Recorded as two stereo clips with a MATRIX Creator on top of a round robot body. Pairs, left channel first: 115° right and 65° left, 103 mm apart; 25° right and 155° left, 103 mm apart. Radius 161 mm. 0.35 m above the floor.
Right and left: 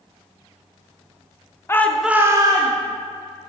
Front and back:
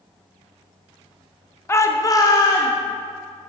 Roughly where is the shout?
Right.